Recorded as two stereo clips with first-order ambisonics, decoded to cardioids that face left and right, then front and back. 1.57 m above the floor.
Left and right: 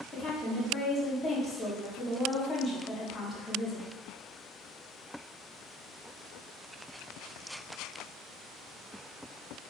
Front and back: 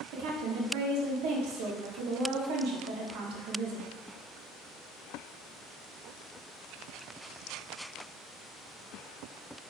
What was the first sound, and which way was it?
A woman speaking, 165° left.